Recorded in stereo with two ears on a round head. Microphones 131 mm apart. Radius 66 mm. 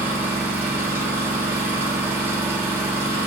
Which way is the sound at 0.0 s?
15° right (ahead or behind).